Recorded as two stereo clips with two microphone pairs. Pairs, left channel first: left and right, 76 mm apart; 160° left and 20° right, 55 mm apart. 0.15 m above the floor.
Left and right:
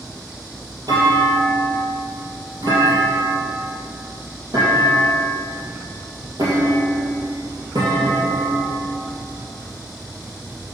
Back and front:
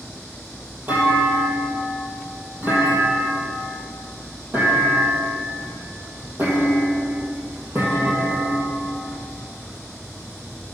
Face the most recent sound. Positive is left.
turn(degrees=-70)